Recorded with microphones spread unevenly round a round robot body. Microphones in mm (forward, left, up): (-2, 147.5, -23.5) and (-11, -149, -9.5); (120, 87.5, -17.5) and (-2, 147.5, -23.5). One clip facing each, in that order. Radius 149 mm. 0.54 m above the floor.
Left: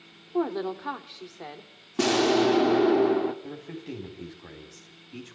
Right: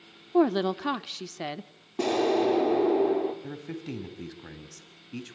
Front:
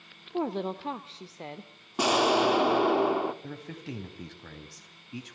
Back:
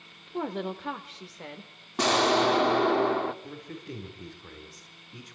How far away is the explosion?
About 1.4 m.